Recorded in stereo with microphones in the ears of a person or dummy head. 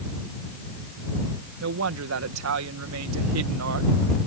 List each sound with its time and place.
1.6 s a woman speaking: 80° right